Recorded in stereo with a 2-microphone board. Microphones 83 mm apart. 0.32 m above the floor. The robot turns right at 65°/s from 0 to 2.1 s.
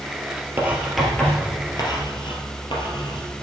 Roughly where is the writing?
Right.